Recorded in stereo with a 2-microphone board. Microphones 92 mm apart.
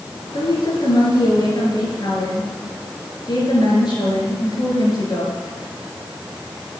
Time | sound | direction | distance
0.3 | a woman speaking | 50° left (ahead or behind) | 3.5 m